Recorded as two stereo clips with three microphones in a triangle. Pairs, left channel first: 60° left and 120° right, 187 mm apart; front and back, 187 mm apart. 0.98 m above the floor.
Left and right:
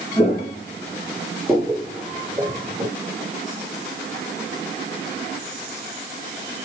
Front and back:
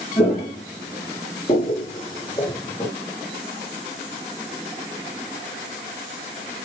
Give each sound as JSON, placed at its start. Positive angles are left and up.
{"t": 0.2, "sound": "footsteps", "azimuth_deg": 20, "distance_m": 1.4}